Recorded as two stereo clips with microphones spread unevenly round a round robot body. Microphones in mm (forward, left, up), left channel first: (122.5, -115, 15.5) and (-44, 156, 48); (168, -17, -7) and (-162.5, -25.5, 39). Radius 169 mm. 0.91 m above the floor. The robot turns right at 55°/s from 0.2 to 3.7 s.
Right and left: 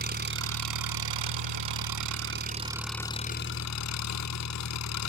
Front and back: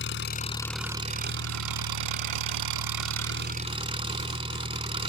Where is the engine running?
60° left; by 5.1 s 105° right.